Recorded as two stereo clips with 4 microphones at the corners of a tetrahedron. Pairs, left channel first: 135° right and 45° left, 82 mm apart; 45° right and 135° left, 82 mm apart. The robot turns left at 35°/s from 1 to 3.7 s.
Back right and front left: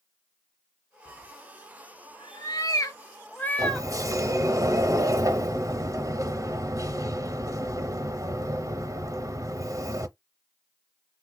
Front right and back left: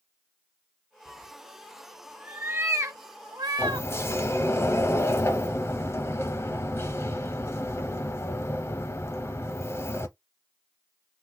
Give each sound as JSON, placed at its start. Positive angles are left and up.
{"t": 1.1, "sound": "a cat meowing", "azimuth_deg": -120, "distance_m": 0.6}
{"t": 3.6, "sound": "a sliding door", "azimuth_deg": 10, "distance_m": 0.5}